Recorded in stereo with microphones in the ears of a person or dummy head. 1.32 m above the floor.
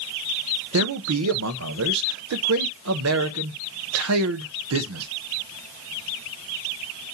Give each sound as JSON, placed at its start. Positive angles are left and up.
{"t": 0.7, "sound": "a man speaking", "side_deg": -85, "distance_m": 0.9}